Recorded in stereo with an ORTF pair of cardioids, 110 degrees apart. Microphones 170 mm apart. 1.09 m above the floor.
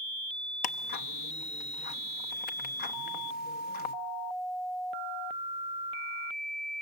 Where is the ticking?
65° left, 1.0 m.